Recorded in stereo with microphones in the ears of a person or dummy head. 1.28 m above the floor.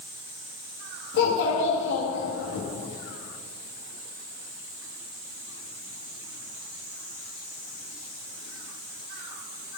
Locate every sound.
1.1 s a child speaking: 65° left (ahead or behind), 1.6 m